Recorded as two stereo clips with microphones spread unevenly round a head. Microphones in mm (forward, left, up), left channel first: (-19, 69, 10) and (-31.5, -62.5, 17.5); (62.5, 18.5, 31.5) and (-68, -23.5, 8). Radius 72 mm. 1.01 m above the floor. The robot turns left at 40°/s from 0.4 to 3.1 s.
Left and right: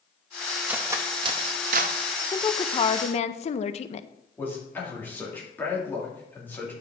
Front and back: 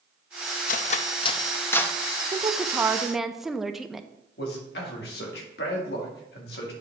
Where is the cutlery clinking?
15° right, 0.6 m; by 1.9 s 65° right, 0.6 m.